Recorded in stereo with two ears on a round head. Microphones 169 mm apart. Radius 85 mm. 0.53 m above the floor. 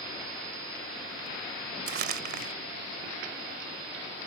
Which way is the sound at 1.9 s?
60° right (ahead or behind).